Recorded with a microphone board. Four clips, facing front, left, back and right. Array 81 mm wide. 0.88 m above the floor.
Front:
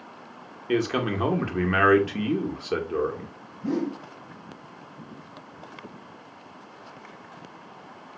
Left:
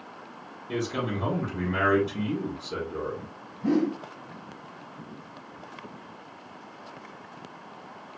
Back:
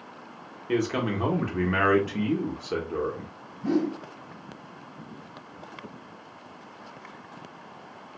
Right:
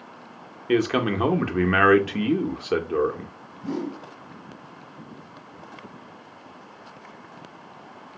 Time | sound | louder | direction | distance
0.7 | a man speaking | right 8 dB, front 1 dB | 75° right | 0.7 m
3.6 | a whoosh | left 5 dB, back 2 dB | 110° left | 1.1 m